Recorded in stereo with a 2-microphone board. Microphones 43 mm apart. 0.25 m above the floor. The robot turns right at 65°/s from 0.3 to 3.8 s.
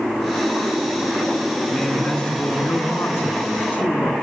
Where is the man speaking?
5° right, 2.5 m; by 4.1 s 130° left, 2.5 m.